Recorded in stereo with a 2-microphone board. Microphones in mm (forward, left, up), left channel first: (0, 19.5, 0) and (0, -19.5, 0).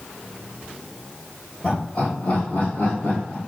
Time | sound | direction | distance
1.6 | laughter | 55° left (ahead or behind) | 2.5 m